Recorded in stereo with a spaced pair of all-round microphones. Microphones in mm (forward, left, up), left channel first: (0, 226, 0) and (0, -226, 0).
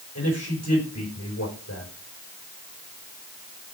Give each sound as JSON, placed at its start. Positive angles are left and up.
{"t": 0.1, "sound": "a man speaking", "side_deg": 30, "distance_m": 4.5}